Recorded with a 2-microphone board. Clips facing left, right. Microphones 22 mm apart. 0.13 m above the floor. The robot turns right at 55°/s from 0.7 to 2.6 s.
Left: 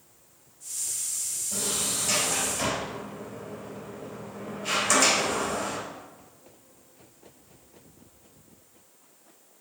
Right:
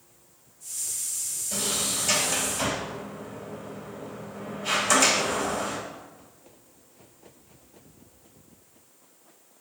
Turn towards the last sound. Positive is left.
turn(degrees=5)  # may be behind; listen again after turning